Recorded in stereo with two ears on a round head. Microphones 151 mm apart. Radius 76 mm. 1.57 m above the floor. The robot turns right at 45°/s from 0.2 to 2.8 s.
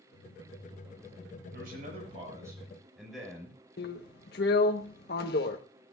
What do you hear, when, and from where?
1.5 s a man speaking: 60° right, 7 m; by 3.6 s straight ahead, 7 m
3.8 s a drill: 60° left (ahead or behind), 1.5 m